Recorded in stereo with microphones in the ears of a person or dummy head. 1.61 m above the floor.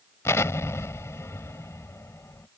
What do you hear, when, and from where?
0.2 s an explosion: 10° left (ahead or behind)